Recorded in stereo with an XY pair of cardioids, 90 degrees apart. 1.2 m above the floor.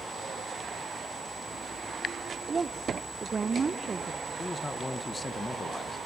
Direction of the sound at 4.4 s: 25° left.